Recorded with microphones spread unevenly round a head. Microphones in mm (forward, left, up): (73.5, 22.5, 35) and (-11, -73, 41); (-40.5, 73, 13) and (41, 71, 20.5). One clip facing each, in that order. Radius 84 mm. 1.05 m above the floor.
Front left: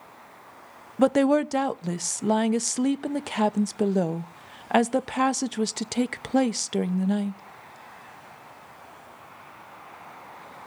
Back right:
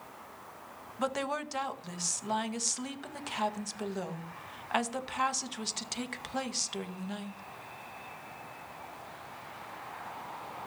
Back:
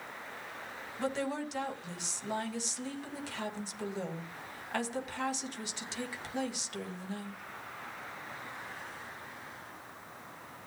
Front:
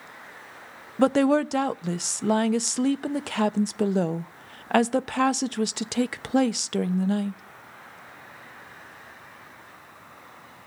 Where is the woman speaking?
20° left, 0.9 m.